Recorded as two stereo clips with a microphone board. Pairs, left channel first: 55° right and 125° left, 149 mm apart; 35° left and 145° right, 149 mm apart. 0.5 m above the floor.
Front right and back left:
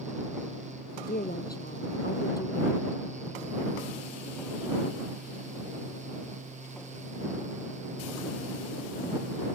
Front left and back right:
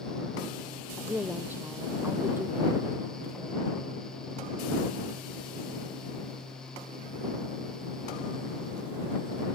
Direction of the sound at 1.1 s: 65° right.